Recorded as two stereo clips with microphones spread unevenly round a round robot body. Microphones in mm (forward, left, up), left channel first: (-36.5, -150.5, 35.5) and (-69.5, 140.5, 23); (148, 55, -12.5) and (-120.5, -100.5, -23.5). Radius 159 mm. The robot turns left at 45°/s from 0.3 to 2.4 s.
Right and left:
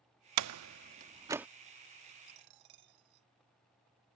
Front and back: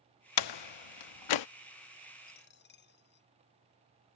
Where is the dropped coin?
95° left; by 3.3 s 90° left.